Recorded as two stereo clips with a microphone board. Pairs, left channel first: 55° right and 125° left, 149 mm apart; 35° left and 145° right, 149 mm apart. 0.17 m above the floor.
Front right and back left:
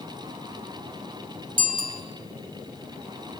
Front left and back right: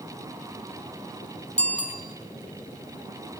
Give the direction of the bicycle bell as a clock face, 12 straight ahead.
8 o'clock.